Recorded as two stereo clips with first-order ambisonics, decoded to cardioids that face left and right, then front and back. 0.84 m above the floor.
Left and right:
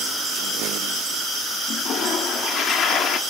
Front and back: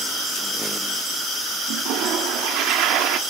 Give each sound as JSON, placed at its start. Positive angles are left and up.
{"t": 1.7, "sound": "a toilet flushing", "azimuth_deg": 145, "distance_m": 1.5}